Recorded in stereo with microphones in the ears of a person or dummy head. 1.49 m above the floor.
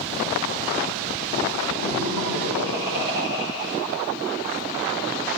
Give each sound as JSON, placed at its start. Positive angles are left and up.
{"t": 1.8, "sound": "laughter", "side_deg": 65, "distance_m": 8.5}